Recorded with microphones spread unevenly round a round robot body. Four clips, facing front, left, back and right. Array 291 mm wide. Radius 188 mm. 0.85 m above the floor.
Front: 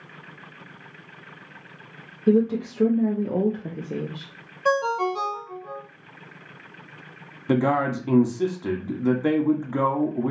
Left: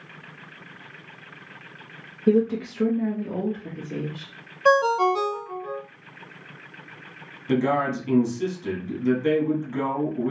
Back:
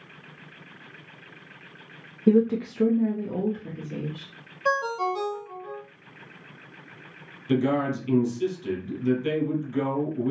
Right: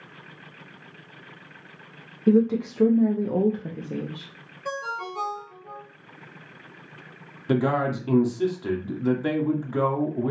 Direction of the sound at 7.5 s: Straight ahead.